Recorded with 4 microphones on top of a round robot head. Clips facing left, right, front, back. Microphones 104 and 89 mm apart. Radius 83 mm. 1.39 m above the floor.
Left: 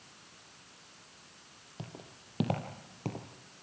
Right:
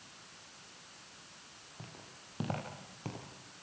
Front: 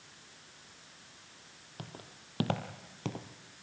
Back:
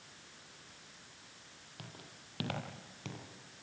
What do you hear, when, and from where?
1.8 s footsteps: 50° left, 3 m; by 3.3 s 30° left, 2.5 m